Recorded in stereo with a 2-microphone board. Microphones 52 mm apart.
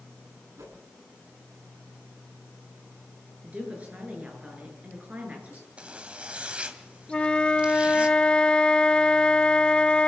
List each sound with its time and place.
0.6 s a whoosh: 80° right, 8 m
3.4 s a woman speaking: 25° right (ahead or behind), 9 m
5.8 s a zipper: 20° right (ahead or behind), 2 m
7.1 s a flute: 20° left (ahead or behind), 0.9 m